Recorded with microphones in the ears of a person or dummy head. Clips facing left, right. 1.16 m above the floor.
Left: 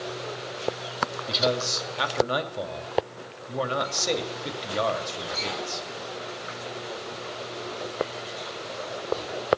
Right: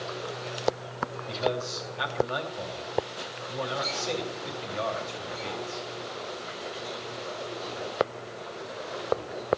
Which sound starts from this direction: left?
A man speaking, at 1.3 s.